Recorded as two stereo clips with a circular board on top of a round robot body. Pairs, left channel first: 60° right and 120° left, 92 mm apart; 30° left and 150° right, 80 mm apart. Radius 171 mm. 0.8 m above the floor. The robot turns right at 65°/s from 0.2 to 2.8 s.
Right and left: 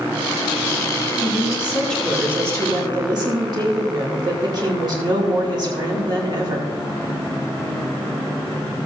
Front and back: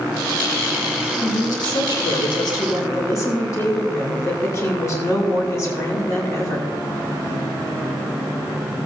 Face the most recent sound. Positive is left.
turn(degrees=80)